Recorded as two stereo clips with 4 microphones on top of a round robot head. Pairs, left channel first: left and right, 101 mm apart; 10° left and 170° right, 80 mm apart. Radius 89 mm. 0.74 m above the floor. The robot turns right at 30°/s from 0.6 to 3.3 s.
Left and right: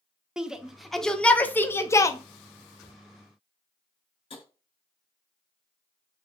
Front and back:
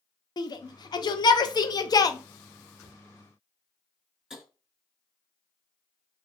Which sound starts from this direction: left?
Tapping, at 4.3 s.